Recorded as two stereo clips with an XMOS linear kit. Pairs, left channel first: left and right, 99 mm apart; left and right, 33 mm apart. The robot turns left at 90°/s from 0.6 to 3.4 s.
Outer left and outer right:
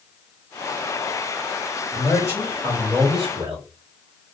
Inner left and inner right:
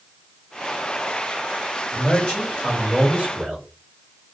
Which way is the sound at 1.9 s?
65° left.